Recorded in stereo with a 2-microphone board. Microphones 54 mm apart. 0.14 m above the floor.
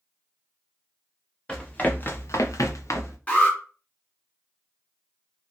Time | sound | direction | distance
1.5 | running footsteps | 20° left (ahead or behind) | 1.4 m
3.3 | an alarm | 25° left (ahead or behind) | 2 m